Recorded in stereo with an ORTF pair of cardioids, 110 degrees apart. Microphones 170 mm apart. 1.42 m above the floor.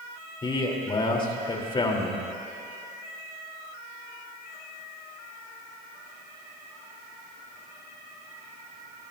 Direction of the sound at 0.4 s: 30° left.